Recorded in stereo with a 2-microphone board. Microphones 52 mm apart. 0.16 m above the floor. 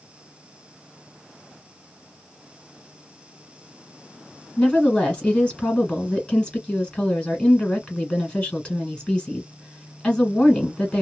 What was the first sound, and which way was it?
A woman speaking, 20° left (ahead or behind).